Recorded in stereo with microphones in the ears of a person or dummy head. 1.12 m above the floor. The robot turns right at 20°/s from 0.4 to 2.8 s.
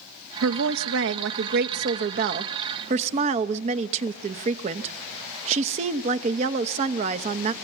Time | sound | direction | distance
0.4 | a woman speaking | 85° right | 1.0 m